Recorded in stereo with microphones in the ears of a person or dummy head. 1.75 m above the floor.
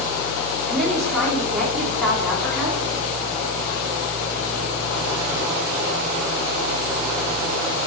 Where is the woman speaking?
5° right (ahead or behind), 3.5 m.